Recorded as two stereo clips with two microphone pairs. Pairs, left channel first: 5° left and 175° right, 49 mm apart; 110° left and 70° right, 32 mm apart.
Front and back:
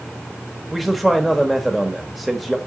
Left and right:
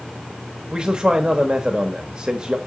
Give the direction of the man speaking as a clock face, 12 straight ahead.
3 o'clock.